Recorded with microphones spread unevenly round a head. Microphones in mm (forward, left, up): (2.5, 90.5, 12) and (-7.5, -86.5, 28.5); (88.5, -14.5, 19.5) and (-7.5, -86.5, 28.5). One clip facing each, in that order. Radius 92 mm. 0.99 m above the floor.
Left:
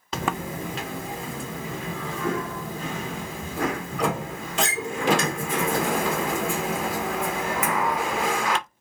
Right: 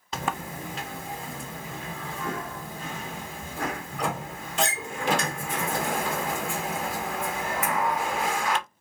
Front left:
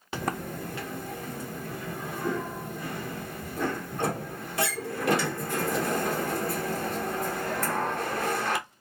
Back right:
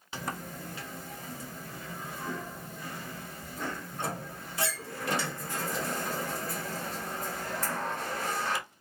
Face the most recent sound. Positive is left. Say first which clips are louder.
# left 4 dB, front left 6 dB
turn(degrees=75)